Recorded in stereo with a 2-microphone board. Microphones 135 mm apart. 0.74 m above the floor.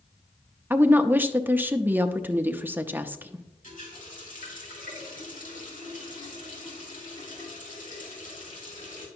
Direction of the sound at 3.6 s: 75° left (ahead or behind).